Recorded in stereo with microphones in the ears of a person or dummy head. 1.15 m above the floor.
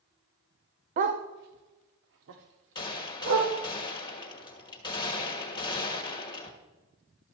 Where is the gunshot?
25° left (ahead or behind), 1.3 m.